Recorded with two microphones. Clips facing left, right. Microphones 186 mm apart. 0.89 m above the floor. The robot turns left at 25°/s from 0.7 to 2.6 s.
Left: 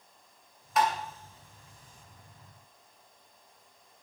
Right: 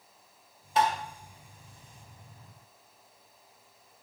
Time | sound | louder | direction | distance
0.8 | tapping | right 1 dB | 30° right (ahead or behind) | 2.0 m